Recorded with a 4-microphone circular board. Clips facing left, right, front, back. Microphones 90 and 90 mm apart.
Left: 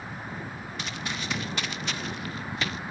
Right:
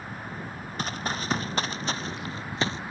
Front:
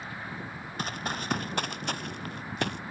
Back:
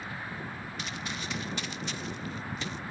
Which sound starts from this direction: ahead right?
Running footsteps, at 0.8 s.